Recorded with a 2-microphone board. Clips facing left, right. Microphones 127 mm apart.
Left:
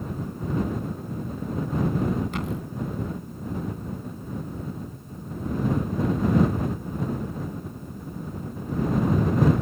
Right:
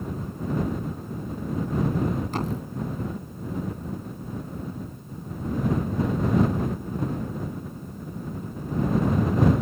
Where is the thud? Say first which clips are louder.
Right 1 dB; 40° right (ahead or behind).